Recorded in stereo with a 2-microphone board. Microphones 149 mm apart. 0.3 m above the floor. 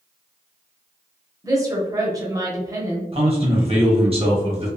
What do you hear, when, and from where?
1.4 s a woman speaking: 25° right (ahead or behind), 1.0 m
3.1 s a man speaking: 40° right (ahead or behind), 1.2 m